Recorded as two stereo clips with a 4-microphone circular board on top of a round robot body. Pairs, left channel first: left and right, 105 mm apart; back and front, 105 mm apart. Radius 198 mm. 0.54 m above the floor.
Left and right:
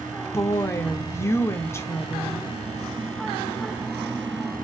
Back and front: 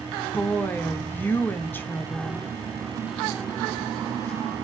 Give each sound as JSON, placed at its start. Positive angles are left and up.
{"t": 0.3, "sound": "a woman speaking", "azimuth_deg": 125, "distance_m": 0.8}